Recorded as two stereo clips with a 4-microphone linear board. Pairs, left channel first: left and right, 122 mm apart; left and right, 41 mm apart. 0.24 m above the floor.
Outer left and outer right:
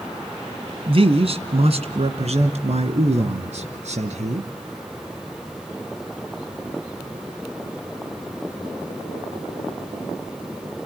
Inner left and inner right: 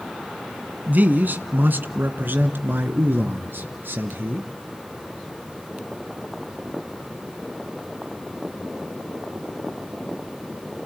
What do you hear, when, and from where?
0.9 s a man speaking: 55° right (ahead or behind), 1.8 m; by 4.5 s 75° right (ahead or behind), 3 m